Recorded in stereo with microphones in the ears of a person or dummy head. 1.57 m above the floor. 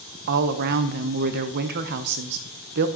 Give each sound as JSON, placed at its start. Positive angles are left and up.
{"t": 0.3, "sound": "a woman speaking", "side_deg": -45, "distance_m": 1.0}